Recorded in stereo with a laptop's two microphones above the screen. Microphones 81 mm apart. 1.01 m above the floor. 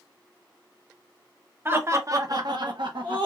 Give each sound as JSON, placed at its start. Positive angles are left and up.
{"t": 1.6, "sound": "laughter", "side_deg": -30, "distance_m": 0.8}